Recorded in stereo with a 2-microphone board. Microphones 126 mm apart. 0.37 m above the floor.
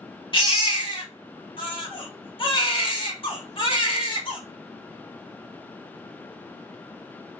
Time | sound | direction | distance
0.3 | a baby crying | 40° left (ahead or behind) | 0.7 m